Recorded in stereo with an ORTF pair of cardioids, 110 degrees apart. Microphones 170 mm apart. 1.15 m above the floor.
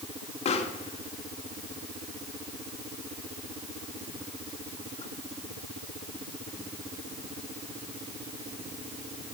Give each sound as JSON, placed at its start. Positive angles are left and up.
{"t": 0.5, "sound": "a pop", "azimuth_deg": 40, "distance_m": 2.0}